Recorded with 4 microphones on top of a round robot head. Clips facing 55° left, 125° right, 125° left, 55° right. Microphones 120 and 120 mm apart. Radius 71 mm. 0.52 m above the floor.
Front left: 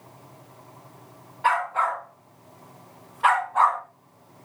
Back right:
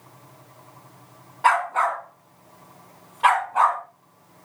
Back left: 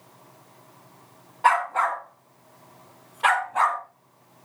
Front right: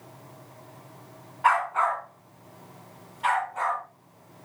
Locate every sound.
1.4 s a dog barking: 170° right, 2.5 m; by 3.8 s 150° left, 2.5 m